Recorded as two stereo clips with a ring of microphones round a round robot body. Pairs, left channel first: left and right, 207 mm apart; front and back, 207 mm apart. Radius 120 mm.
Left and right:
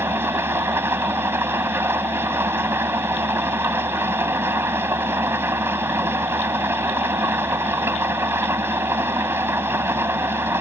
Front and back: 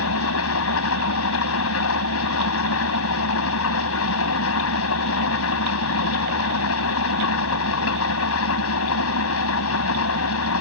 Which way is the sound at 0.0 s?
10° right.